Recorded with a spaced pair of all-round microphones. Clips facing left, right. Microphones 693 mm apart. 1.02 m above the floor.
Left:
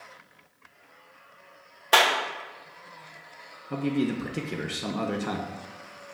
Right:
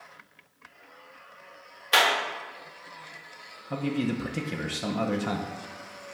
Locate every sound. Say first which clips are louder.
1.9 s a clap: left 2 dB; 70° left (ahead or behind), 1.5 m
3.7 s a man speaking: left 2 dB; 15° right (ahead or behind), 0.9 m